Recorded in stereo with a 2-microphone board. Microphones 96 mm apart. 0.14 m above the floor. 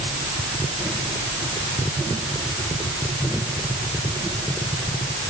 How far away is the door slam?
I don't hear a door slam.